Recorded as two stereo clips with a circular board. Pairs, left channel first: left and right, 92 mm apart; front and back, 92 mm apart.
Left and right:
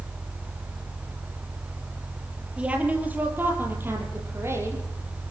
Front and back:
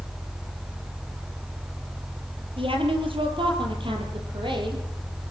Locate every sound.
2.6 s a woman speaking: 165° right, 6 m; by 4.8 s 150° right, 8.5 m